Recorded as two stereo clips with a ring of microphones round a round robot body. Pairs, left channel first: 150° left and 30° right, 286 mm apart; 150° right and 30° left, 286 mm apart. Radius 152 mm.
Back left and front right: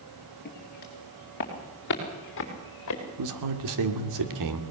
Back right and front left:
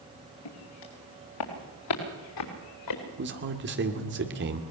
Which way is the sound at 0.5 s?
150° right.